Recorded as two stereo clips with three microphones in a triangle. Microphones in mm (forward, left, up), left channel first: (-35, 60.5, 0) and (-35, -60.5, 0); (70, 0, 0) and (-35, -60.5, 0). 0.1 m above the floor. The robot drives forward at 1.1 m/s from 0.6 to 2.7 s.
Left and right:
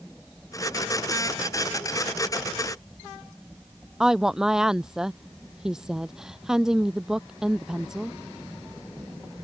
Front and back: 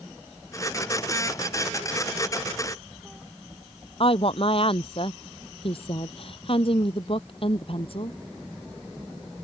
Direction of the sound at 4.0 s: 5° right.